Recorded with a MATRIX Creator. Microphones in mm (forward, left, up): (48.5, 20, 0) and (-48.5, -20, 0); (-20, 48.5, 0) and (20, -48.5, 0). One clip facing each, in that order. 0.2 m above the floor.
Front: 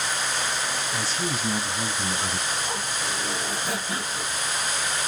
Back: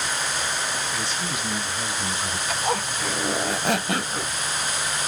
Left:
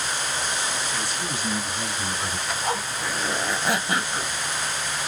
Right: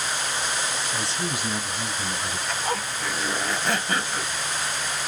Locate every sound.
0.9 s a man speaking: 25° right, 1.8 m; by 2.4 s 60° left, 1.7 m
2.5 s a zipper: 165° right, 0.8 m